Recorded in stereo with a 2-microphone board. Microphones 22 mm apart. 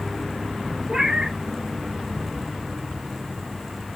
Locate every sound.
0.9 s a cat meowing: 45° right (ahead or behind), 0.7 m